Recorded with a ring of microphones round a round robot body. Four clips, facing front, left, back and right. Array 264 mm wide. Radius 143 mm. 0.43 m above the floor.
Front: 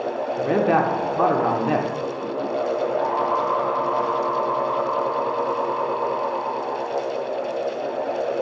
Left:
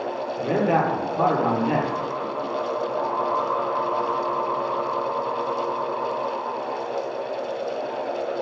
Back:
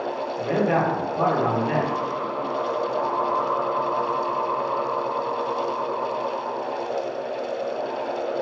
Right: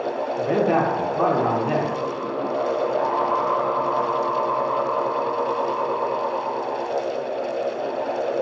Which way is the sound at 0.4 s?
10° left.